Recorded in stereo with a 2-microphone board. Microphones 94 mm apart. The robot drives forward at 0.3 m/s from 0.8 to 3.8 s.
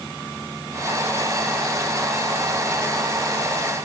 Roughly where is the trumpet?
I don't hear a trumpet.